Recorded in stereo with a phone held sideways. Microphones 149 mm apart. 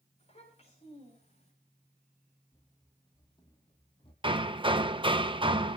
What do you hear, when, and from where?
0.2 s a child speaking: 45° left (ahead or behind), 9 m
2.5 s running footsteps: 15° left (ahead or behind), 2 m; by 4.1 s 35° left (ahead or behind), 3 m
4.2 s hammering: 35° right (ahead or behind), 0.8 m